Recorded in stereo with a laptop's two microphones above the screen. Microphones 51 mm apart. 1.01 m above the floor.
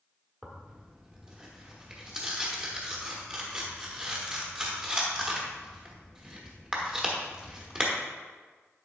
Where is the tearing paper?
15° right (ahead or behind), 1.1 m.